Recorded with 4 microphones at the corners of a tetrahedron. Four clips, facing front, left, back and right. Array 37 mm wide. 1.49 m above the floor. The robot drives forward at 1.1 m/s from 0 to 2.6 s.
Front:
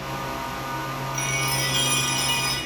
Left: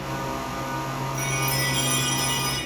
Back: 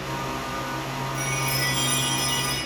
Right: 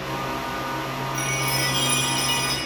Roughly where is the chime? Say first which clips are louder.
Right 2 dB, front 2 dB; ahead right.